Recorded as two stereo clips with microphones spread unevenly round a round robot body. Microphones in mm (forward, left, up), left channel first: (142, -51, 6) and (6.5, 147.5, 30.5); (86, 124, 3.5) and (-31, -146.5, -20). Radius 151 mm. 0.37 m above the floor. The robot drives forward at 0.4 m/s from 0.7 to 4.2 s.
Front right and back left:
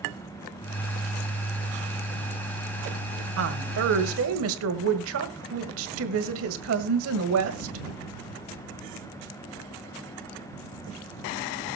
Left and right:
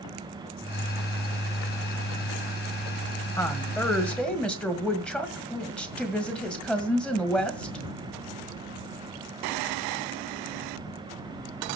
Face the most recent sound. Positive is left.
turn(degrees=155)